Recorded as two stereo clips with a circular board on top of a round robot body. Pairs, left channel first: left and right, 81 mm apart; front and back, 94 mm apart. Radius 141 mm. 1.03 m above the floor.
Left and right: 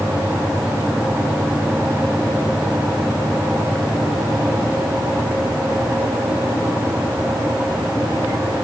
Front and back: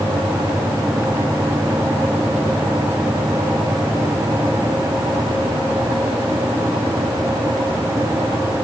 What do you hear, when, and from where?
Only background noise.